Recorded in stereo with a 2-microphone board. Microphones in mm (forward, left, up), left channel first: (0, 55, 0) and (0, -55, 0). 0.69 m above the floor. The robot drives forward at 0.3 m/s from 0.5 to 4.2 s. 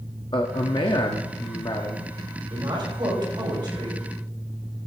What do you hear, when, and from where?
0.3 s a man speaking: 50° left (ahead or behind), 1.0 m; by 2.4 s 40° left (ahead or behind), 1.2 m
2.5 s a woman speaking: 45° right (ahead or behind), 4 m; by 4.0 s 40° right (ahead or behind), 4.5 m